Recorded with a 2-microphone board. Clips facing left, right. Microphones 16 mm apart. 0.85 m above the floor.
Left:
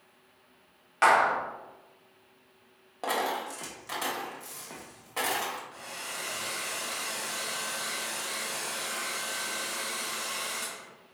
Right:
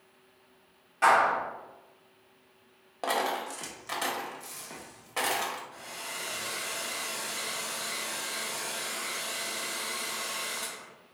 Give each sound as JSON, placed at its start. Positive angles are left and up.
{"t": 1.0, "sound": "a clap", "side_deg": 50, "distance_m": 0.8}
{"t": 3.0, "sound": "a dropped coin", "side_deg": -10, "distance_m": 0.6}
{"t": 5.7, "sound": "a hair dryer", "side_deg": 50, "distance_m": 1.5}